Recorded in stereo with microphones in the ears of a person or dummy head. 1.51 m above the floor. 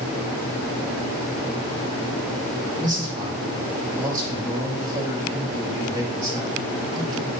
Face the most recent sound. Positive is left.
turn(degrees=-20)  # may be behind; listen again after turning